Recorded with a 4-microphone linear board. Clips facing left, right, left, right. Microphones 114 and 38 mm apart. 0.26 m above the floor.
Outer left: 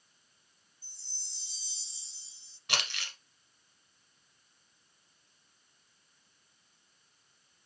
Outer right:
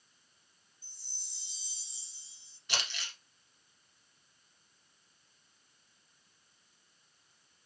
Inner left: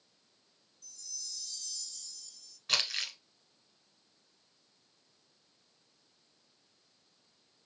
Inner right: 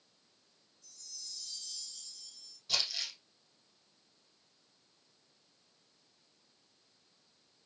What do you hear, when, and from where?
0.8 s a chime: 20° right (ahead or behind), 0.8 m
2.7 s crumpling: 65° left (ahead or behind), 1.0 m